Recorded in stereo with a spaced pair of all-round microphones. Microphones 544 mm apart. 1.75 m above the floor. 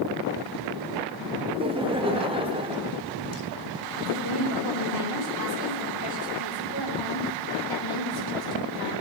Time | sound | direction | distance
1.5 | laughter | 10° right (ahead or behind) | 1.0 m
4.0 | a woman speaking | 55° left (ahead or behind) | 4.5 m